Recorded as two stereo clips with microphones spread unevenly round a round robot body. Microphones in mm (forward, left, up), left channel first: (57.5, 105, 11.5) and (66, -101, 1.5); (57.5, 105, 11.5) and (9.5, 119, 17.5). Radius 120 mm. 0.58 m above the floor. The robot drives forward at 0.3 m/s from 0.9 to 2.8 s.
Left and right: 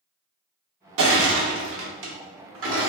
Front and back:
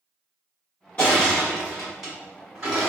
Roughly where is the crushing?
Right.